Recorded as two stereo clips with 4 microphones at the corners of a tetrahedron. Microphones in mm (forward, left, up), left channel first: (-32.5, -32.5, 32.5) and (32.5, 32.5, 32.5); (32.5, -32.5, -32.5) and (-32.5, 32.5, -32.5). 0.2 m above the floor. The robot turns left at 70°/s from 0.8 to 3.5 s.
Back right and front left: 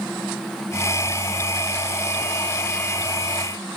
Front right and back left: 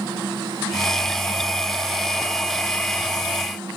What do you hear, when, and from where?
Only background noise.